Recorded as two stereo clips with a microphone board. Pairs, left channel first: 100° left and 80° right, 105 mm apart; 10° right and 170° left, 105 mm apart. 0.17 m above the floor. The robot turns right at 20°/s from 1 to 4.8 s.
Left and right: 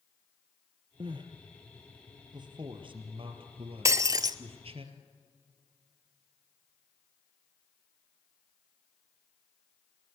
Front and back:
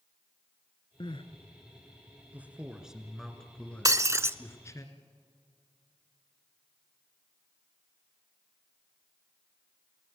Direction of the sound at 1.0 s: 45° right.